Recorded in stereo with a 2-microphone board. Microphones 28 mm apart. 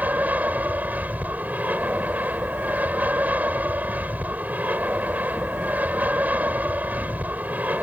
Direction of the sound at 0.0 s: 65° right (ahead or behind).